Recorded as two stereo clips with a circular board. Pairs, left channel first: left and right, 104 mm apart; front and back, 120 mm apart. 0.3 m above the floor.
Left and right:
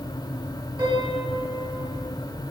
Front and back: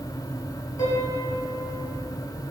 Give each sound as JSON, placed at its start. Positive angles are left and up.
{"t": 0.8, "sound": "a piano", "azimuth_deg": -60, "distance_m": 1.7}